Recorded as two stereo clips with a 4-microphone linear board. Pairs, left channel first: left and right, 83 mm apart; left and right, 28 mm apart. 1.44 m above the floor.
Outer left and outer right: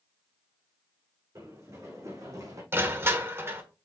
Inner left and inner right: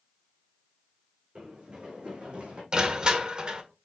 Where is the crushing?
30° right (ahead or behind), 1.4 m.